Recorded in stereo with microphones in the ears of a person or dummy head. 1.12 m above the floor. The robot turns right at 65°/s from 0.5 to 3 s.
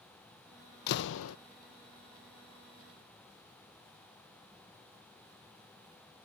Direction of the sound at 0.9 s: 55° left.